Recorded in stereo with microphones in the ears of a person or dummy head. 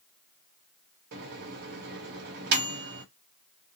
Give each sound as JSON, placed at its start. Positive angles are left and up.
{"t": 1.1, "sound": "a microwave", "side_deg": -60, "distance_m": 0.8}